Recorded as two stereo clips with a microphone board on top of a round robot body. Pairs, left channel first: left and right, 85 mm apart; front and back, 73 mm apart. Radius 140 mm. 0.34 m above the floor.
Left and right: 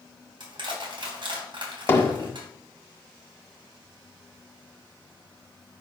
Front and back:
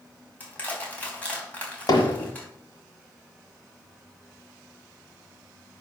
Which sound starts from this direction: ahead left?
Hammering, at 1.9 s.